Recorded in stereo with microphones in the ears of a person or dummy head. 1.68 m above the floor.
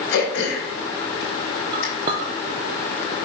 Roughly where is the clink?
Right.